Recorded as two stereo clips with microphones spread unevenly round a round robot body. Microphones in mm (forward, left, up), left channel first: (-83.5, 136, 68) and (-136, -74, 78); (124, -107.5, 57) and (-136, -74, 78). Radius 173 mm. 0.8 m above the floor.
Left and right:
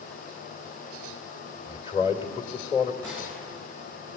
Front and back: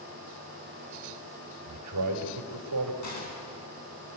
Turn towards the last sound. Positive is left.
turn(degrees=-10)